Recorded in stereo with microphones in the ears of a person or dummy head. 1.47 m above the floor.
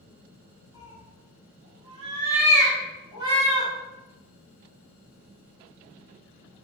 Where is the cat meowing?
25° right (ahead or behind), 1.8 m.